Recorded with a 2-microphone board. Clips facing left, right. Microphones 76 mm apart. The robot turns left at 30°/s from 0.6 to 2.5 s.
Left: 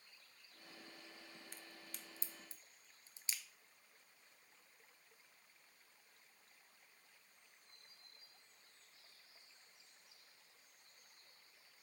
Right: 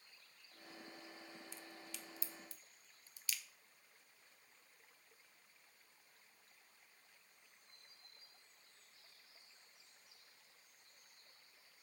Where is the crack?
55° left (ahead or behind), 1.1 m; by 3.4 s 25° left (ahead or behind), 1.1 m.